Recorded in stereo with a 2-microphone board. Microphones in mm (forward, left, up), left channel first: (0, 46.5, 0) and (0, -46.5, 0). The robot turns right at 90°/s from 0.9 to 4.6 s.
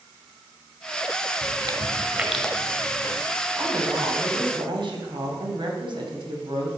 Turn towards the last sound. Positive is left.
turn(degrees=-70)